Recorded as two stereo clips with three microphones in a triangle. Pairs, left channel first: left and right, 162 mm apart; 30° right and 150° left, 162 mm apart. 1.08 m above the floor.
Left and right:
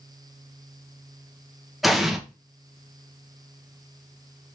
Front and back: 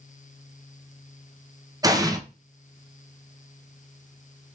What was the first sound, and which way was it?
An explosion, straight behind.